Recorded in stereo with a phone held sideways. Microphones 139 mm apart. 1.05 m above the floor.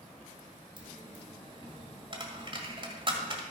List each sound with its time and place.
0.8 s a dropped coin: 40° right (ahead or behind), 1.7 m